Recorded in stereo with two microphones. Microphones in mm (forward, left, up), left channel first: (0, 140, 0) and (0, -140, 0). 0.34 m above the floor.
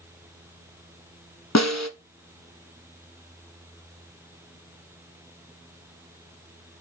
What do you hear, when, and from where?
1.6 s a snare drum: 70° left (ahead or behind), 1.0 m